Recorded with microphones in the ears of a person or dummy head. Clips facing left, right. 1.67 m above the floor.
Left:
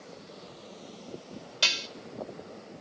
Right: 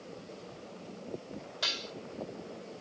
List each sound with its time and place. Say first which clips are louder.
1.6 s dishes clattering: left 5 dB; 40° left (ahead or behind), 2 m